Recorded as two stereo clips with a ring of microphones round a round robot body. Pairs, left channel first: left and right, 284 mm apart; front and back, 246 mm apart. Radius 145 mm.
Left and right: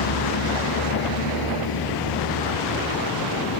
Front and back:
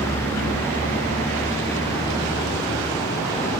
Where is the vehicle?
80° left.